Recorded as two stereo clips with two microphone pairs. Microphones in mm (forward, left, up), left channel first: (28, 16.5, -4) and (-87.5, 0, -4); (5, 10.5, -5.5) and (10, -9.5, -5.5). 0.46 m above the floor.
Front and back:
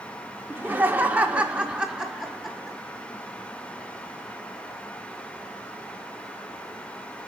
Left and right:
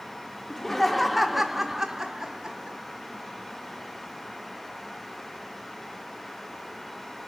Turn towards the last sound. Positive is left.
turn(degrees=-85)